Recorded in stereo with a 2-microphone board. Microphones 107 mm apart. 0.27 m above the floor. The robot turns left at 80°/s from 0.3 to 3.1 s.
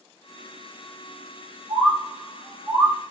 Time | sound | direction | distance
1.7 | a bird | 15° right (ahead or behind) | 1.5 m